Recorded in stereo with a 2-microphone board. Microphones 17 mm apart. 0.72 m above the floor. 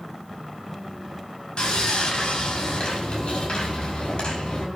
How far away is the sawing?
About 5.5 m.